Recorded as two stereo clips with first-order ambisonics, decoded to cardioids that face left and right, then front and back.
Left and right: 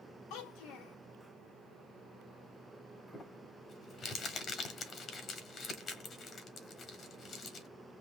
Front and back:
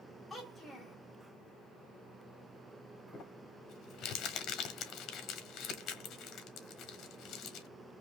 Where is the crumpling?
40° left, 1.2 m.